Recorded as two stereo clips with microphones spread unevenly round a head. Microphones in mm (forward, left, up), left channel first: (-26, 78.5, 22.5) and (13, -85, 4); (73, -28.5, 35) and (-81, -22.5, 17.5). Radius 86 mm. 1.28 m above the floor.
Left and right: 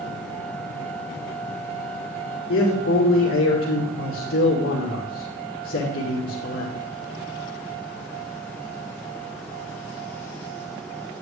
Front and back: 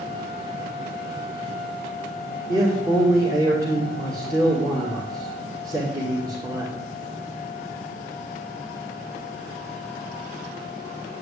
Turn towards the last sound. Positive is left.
turn(degrees=105)